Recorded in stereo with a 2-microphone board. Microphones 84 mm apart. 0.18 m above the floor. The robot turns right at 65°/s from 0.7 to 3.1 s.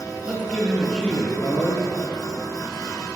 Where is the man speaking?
20° right, 3 m; by 1.9 s 55° left, 3 m.